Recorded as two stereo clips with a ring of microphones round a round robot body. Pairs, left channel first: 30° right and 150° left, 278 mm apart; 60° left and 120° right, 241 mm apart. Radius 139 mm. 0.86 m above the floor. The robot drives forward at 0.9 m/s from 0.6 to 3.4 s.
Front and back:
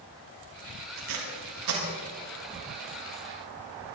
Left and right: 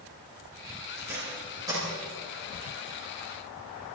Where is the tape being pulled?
160° left, 3.5 m.